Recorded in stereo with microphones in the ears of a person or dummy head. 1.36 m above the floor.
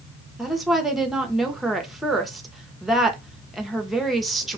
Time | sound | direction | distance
0.4 | a woman speaking | 5° right (ahead or behind) | 0.6 m